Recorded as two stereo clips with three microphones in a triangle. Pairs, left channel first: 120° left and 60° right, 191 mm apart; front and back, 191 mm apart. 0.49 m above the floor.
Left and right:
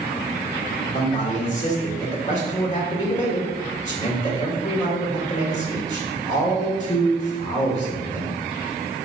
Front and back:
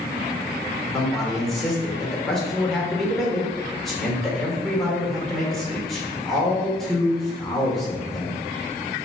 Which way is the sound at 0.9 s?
90° left.